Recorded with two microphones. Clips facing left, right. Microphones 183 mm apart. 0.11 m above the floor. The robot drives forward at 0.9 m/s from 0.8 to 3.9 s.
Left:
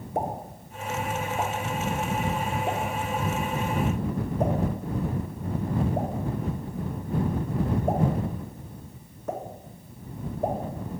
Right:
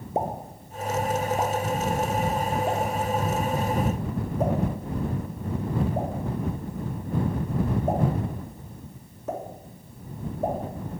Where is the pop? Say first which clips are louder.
Right 2 dB; 20° right (ahead or behind), 0.7 m; by 10.6 s 5° right (ahead or behind), 2.5 m.